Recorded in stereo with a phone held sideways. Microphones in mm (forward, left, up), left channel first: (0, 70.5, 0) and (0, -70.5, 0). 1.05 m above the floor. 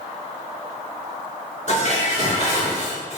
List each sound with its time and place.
1.7 s dishes clattering: 55° left (ahead or behind), 1.6 m